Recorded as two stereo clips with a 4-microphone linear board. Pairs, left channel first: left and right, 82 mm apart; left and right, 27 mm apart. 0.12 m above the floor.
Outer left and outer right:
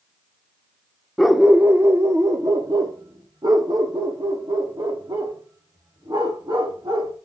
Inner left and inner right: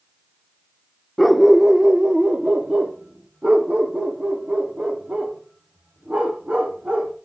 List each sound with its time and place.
1.2 s a dog barking: 5° left (ahead or behind), 0.6 m; by 7.2 s 65° right (ahead or behind), 4.5 m